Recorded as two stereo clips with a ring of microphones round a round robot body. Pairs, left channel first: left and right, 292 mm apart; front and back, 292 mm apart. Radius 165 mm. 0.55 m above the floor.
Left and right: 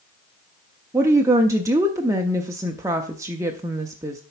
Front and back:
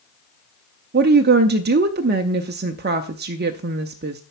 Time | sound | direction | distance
0.9 | a woman speaking | 160° right | 0.7 m